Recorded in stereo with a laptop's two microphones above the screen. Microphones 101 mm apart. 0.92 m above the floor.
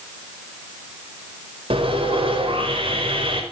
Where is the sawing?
65° right (ahead or behind), 4.5 m.